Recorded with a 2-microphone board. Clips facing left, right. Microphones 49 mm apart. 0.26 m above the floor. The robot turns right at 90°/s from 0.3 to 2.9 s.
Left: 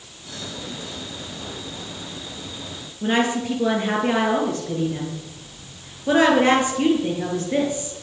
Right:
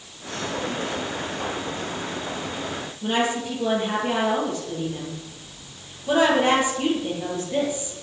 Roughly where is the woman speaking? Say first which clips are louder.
Left 3 dB; left.